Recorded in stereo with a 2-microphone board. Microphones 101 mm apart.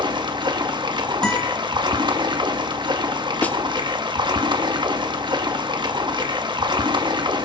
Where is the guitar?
10° left (ahead or behind), 4.5 m.